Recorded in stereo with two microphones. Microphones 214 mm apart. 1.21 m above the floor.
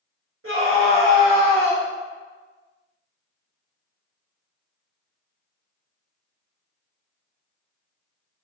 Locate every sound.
0.4 s a scream: 75° right (ahead or behind), 1.7 m; by 1.8 s 55° right (ahead or behind), 2.5 m